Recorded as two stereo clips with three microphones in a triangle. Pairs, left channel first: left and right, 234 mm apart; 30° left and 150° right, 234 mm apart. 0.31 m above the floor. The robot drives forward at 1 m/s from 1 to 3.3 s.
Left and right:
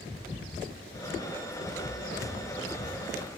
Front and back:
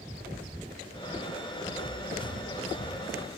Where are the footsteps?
50° left, 3.5 m; by 3.1 s 75° left, 2.0 m.